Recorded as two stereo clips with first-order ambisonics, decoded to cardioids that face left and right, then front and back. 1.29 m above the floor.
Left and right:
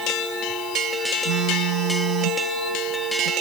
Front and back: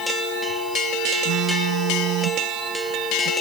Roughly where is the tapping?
No tapping in this recording.